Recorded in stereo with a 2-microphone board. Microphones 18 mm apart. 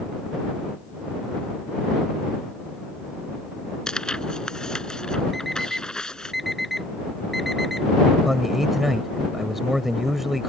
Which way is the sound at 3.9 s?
45° left (ahead or behind).